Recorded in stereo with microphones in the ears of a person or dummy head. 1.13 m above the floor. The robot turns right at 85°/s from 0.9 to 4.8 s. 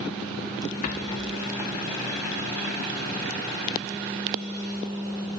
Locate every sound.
0.8 s a rattle: 130° left, 1.0 m; by 1.8 s 155° right, 1.0 m